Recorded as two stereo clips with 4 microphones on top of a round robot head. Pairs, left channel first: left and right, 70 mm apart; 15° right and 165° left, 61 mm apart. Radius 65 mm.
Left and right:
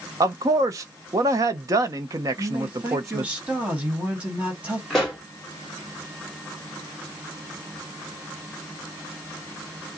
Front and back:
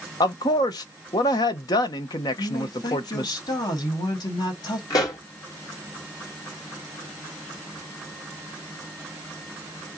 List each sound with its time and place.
0.2 s a man speaking: 40° right, 0.7 m
2.4 s a man speaking: 15° right, 1.7 m
4.9 s a pop: 5° left, 1.7 m